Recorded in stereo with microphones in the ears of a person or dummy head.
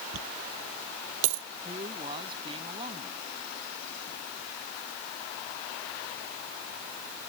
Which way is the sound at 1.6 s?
30° right (ahead or behind).